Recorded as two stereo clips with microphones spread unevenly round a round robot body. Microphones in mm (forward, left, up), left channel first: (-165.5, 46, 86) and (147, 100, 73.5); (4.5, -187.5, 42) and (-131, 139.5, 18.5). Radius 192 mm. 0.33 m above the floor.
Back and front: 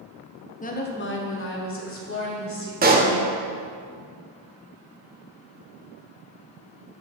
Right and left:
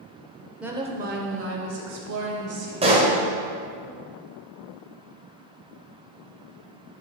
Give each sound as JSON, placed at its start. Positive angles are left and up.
{"t": 0.6, "sound": "a woman speaking", "azimuth_deg": -175, "distance_m": 1.0}
{"t": 2.8, "sound": "a pop", "azimuth_deg": 50, "distance_m": 1.0}